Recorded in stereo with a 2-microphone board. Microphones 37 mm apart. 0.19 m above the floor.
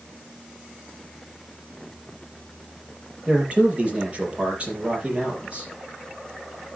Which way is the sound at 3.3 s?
30° right (ahead or behind).